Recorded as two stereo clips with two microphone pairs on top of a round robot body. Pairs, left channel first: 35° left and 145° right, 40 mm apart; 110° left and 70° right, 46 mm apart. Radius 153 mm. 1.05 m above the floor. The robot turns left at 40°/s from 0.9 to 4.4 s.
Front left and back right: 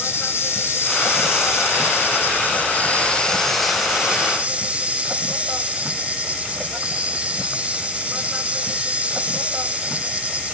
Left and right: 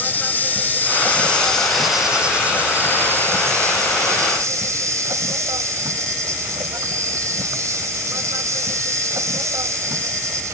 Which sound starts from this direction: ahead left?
An insect, at 0.0 s.